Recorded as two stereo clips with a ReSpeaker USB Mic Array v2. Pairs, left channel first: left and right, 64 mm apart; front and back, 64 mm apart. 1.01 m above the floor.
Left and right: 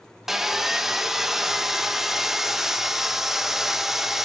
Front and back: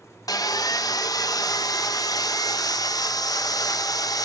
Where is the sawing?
5° right, 0.6 m.